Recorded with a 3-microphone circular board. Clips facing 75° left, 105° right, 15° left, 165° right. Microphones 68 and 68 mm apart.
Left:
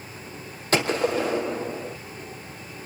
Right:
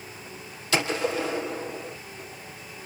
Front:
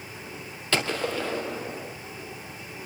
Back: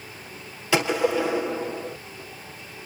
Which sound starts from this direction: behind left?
A gunshot, at 0.7 s.